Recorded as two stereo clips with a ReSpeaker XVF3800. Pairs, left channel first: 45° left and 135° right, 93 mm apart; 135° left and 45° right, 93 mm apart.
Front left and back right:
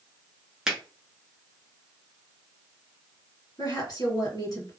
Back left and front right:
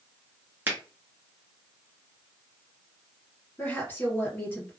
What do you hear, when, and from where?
0.7 s a finger snap: 60° right, 1.1 m
3.6 s a woman speaking: 65° left, 2 m